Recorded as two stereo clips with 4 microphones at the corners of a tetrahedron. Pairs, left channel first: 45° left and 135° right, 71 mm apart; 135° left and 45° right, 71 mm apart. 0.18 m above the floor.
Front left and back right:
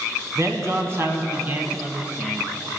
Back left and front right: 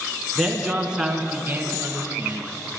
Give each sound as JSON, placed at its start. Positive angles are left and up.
{"t": 0.3, "sound": "a man speaking", "azimuth_deg": -130, "distance_m": 1.5}